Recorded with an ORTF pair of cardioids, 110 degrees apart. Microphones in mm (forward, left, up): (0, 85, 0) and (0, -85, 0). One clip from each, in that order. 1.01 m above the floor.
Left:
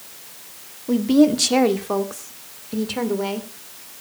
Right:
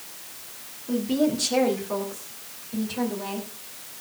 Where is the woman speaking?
50° left, 1.8 m; by 3.5 s 70° left, 3 m.